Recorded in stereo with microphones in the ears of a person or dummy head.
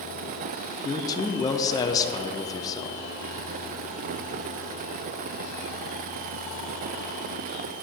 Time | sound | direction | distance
0.8 | a man speaking | 20° left (ahead or behind) | 0.6 m